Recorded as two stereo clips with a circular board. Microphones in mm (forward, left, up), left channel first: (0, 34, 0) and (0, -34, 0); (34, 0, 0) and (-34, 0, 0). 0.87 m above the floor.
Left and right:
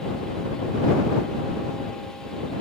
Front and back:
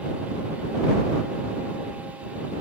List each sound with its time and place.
Only background noise.